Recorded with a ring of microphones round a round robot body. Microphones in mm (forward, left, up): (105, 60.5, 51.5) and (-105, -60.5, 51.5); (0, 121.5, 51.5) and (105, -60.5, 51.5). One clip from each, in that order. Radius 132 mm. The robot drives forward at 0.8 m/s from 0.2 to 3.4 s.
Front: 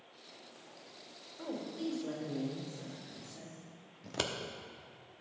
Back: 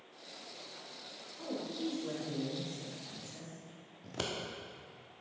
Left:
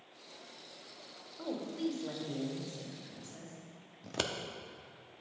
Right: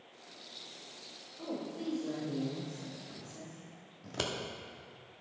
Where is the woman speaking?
95° left, 2 m; by 3.6 s 135° left, 3 m.